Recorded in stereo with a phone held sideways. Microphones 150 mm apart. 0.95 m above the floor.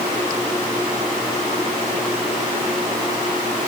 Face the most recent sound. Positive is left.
No sound to turn to.